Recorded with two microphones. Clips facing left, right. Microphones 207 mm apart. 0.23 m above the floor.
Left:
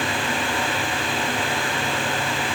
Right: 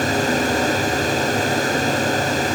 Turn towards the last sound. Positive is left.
No sound to turn to.